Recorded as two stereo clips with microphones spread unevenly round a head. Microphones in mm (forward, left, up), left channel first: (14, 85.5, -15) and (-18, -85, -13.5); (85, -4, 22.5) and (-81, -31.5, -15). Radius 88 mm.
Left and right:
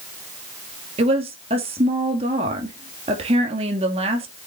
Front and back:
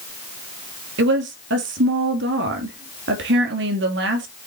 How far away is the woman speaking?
About 2.5 m.